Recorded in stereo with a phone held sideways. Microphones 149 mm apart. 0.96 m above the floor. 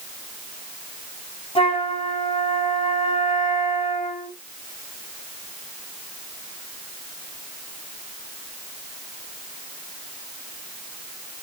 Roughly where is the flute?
Left.